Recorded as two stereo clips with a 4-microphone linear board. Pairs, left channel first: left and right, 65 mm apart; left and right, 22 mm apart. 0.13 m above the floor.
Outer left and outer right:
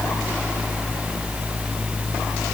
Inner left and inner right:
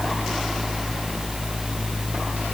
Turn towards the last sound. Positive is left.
No sound to turn to.